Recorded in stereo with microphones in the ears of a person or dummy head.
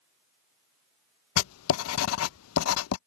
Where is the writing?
85° left.